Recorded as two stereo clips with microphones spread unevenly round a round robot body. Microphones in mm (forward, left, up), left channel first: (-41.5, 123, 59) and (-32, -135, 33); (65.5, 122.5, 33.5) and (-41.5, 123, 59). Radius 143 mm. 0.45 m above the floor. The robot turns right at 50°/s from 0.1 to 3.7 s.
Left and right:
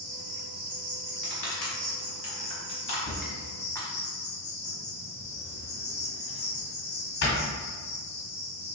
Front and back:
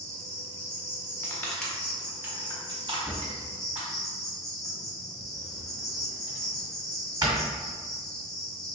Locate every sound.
0.0 s an insect: 125° right, 1.2 m; by 8.7 s 55° left, 1.2 m
1.2 s crushing: 50° left, 1.3 m; by 3.9 s 175° left, 1.3 m
3.0 s a drawer: 95° left, 1.8 m; by 7.4 s 130° left, 1.8 m